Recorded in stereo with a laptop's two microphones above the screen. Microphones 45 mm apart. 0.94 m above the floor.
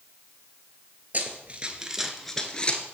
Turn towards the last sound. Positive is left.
turn(degrees=30)  # may be behind; listen again after turning